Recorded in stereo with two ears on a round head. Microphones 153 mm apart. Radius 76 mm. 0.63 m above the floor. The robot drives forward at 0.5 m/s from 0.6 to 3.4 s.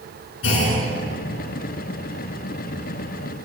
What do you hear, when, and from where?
0.4 s a clunk: 80° left, 9.5 m; by 0.8 s 85° left, 9.5 m